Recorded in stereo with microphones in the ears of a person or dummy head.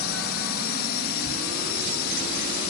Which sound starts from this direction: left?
A drone, at 0.0 s.